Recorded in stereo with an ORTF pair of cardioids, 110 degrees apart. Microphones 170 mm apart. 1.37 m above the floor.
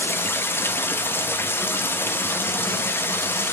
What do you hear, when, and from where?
0.0 s running water: 15° left, 1.4 m